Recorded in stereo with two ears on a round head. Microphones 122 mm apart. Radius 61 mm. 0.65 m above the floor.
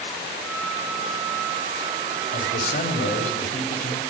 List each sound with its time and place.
0.4 s a flute: 10° left (ahead or behind), 8 m
2.3 s a man speaking: 70° left (ahead or behind), 3.5 m